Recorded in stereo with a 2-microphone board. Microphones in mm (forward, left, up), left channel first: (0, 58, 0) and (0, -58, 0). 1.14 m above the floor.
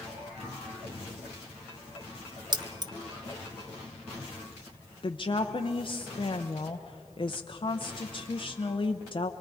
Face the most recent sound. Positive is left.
turn(degrees=45)  # may be behind; listen again after turning